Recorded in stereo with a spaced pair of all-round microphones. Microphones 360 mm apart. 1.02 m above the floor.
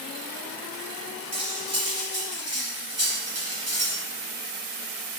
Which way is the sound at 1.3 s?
45° right (ahead or behind).